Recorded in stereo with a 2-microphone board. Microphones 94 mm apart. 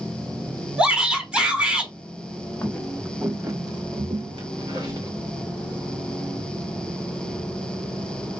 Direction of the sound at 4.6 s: 45° right (ahead or behind).